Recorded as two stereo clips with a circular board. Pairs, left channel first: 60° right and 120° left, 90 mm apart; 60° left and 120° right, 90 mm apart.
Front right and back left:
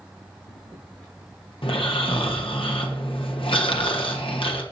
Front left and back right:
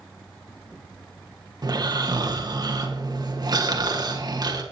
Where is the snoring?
80° right, 1.3 m.